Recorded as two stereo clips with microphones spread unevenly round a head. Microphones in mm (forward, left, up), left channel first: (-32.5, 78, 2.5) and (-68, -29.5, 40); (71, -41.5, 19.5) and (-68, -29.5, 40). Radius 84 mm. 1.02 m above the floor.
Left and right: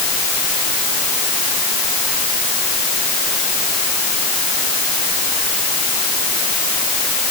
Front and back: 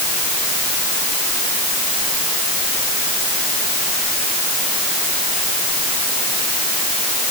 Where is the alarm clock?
I don't hear an alarm clock.